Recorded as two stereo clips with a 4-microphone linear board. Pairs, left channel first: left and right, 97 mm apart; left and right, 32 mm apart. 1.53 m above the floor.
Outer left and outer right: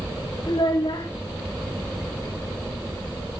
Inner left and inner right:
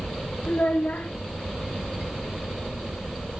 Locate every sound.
0.5 s a child speaking: 55° left (ahead or behind), 2.5 m